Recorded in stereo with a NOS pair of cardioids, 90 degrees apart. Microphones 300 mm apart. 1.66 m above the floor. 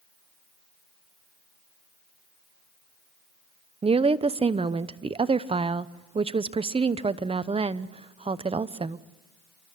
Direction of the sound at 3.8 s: 20° right.